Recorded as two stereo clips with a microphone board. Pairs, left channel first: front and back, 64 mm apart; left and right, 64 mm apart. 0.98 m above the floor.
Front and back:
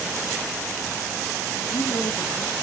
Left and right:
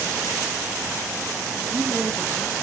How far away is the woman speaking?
About 1.9 m.